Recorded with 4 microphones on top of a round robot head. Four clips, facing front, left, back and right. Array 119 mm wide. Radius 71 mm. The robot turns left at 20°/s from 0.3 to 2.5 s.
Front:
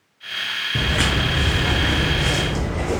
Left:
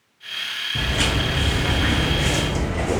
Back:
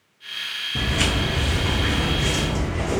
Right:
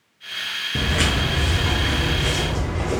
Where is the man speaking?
I don't hear a man speaking.